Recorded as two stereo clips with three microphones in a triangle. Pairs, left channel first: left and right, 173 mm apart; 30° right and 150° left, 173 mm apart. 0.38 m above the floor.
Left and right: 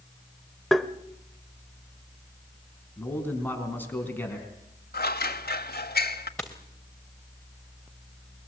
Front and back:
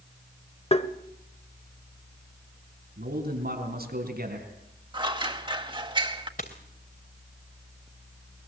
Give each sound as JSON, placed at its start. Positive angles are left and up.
{"t": 0.7, "sound": "tapping", "azimuth_deg": 0, "distance_m": 1.1}
{"t": 3.0, "sound": "a man speaking", "azimuth_deg": 170, "distance_m": 4.0}
{"t": 4.9, "sound": "scissors", "azimuth_deg": 95, "distance_m": 1.3}
{"t": 6.4, "sound": "a dropped coin", "azimuth_deg": 5, "distance_m": 3.0}